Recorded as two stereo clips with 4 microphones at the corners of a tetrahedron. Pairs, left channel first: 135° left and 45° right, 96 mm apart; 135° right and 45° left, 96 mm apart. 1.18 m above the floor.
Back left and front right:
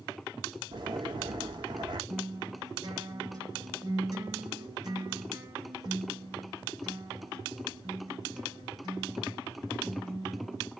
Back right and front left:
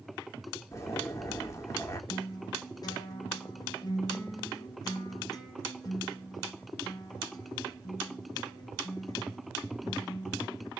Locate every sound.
0.7 s a zipper: 80° right, 1.1 m
2.1 s a guitar: 90° right, 1.1 m